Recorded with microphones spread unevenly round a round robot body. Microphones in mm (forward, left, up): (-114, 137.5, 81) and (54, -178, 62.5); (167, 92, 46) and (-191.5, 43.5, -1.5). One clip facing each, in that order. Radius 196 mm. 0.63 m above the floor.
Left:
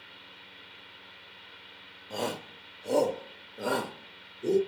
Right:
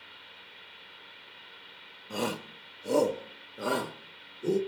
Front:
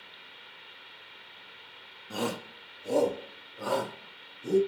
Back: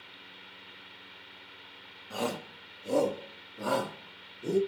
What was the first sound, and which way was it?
A shout, 25° right.